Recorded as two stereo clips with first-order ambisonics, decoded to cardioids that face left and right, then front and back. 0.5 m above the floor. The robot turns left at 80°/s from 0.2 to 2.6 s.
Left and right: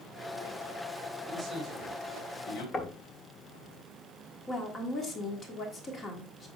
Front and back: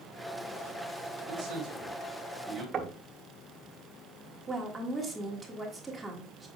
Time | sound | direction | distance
1.3 | a man speaking | 150° right | 2.5 m
2.7 | knocking | 145° left | 0.9 m
4.5 | a woman speaking | 105° left | 1.3 m